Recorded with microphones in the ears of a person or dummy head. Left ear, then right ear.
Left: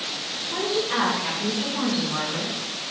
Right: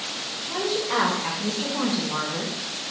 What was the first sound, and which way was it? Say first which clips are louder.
A woman speaking: even; 35° right (ahead or behind).